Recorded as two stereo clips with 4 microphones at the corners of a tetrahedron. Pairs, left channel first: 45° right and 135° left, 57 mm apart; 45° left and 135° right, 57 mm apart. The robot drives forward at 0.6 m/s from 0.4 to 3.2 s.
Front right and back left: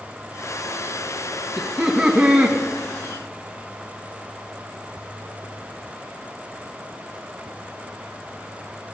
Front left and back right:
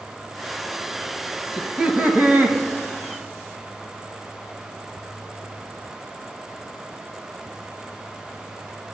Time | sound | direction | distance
1.6 | laughter | 145° right | 1.0 m